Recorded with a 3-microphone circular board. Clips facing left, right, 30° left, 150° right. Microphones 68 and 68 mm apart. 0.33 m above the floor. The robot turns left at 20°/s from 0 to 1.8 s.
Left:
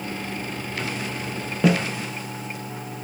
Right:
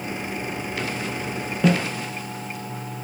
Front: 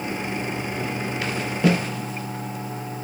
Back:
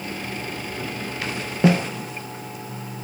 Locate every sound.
1.6 s a snare drum: 165° left, 0.5 m; by 1.8 s 160° left, 0.5 m